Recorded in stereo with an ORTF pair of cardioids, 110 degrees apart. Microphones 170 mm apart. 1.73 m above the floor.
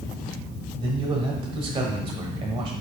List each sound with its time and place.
0.8 s a man speaking: 35° right, 1.3 m